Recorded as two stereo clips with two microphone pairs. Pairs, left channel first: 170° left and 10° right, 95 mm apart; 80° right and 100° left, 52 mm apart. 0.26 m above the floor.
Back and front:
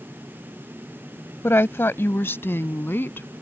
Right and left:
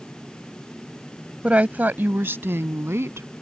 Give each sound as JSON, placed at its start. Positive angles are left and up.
{"t": 1.4, "sound": "a woman speaking", "azimuth_deg": 140}